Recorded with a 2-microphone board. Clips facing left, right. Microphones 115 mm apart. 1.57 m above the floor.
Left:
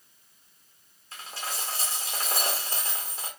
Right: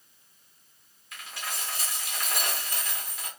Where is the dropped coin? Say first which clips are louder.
Left 2 dB; 30° left (ahead or behind), 1.1 m.